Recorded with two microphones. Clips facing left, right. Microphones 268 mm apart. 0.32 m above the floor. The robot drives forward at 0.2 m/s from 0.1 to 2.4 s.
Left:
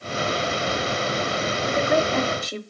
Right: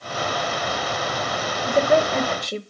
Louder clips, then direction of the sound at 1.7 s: Right 4 dB; 40° right (ahead or behind).